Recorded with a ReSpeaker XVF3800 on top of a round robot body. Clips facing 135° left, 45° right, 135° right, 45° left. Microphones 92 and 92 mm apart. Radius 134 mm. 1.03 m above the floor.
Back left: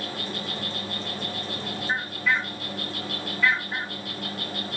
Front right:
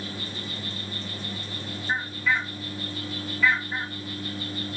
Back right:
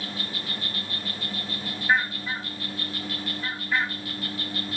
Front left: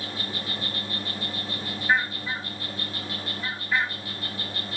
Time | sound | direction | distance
0.0 | an insect | 115° left | 3.5 m